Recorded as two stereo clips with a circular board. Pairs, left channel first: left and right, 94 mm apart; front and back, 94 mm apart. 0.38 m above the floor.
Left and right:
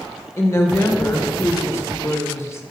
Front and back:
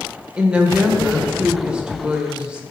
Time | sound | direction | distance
0.4 | a woman speaking | 110° left | 1.0 m